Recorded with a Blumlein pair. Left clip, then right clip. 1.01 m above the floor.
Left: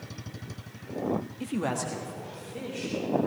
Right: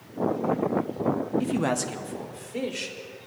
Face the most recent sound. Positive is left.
turn(degrees=-30)